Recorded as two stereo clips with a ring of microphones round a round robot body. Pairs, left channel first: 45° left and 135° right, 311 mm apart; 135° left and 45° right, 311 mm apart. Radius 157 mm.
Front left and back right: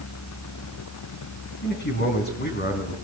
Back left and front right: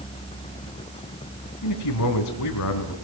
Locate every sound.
1.6 s a man speaking: 105° left, 4 m